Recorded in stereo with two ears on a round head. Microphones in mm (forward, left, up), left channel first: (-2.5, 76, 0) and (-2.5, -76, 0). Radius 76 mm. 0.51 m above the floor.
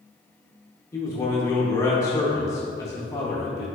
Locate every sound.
0.9 s a man speaking: 20° left (ahead or behind), 0.8 m